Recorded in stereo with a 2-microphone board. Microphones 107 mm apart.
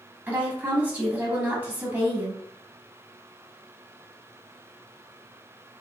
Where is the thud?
I don't hear a thud.